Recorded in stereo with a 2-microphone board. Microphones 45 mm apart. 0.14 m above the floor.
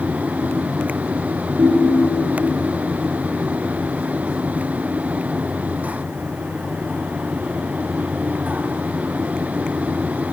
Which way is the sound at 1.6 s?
85° right.